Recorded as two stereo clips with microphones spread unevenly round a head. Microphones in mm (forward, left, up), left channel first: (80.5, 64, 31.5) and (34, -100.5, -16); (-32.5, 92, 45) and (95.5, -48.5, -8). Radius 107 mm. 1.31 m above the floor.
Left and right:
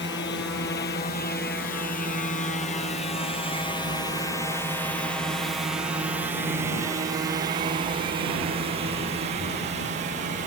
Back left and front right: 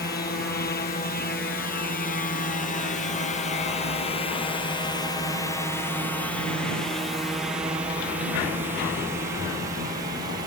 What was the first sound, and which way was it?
A drone, 95° left.